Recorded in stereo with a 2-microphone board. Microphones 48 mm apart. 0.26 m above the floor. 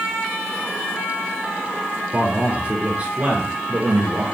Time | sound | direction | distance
2.1 | a man speaking | 25° right (ahead or behind) | 6.5 m